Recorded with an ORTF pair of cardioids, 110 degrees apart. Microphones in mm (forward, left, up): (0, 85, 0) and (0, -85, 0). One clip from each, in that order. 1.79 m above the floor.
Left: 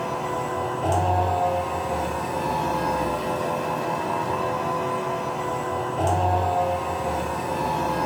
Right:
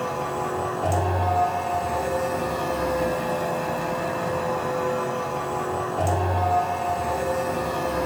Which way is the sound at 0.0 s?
30° right.